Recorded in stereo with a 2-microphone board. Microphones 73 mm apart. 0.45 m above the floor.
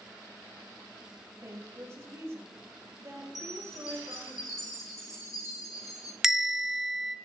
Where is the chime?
50° left (ahead or behind), 2 m.